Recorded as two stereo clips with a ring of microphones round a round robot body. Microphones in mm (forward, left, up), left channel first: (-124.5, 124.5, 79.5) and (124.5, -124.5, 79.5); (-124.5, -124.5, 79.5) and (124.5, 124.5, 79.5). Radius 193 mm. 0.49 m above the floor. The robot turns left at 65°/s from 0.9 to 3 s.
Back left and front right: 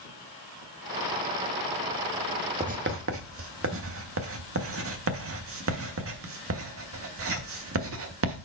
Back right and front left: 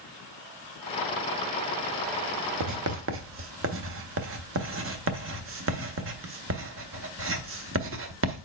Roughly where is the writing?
Ahead left.